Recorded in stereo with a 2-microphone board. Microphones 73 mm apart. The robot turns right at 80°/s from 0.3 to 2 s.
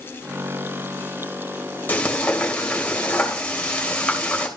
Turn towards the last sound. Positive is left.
turn(degrees=15)  # may be behind; listen again after turning